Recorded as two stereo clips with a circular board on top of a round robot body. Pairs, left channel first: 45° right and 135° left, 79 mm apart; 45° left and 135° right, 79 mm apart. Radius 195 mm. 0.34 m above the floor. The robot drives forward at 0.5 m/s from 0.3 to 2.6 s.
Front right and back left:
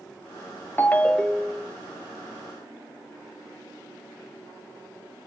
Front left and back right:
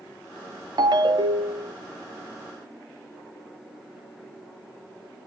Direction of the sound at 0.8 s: 110° right.